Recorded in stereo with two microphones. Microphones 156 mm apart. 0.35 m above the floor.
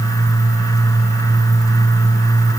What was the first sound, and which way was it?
Only background noise.